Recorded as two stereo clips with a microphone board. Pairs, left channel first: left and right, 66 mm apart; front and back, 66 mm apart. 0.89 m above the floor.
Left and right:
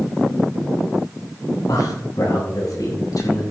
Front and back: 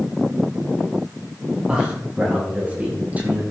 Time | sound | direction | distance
1.7 | a man speaking | 105° left | 6.5 m